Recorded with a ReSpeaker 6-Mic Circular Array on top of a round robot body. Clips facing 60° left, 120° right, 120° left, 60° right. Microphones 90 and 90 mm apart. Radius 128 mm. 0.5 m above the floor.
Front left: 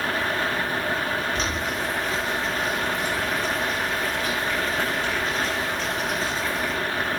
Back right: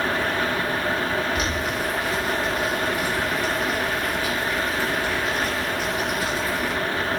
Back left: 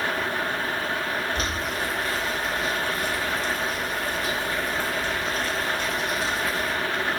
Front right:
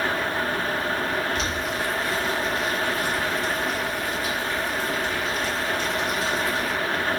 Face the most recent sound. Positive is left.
turn(degrees=160)